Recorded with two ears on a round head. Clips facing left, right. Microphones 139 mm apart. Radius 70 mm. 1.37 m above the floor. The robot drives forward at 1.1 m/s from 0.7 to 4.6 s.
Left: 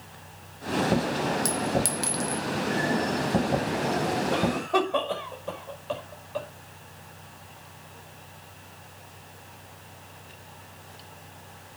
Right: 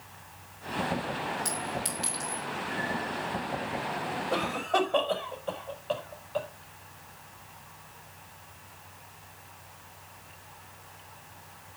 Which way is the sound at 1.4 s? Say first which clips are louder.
Left 8 dB; 50° left (ahead or behind).